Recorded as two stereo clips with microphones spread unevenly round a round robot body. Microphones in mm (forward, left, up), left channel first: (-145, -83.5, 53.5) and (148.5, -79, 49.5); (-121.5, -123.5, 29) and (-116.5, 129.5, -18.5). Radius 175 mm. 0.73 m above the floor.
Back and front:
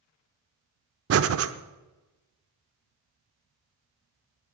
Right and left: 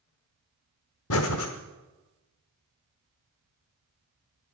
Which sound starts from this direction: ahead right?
Breathing, at 1.1 s.